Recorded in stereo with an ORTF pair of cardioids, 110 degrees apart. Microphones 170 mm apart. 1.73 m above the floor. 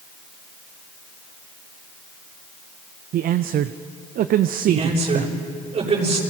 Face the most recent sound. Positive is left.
turn(degrees=-40)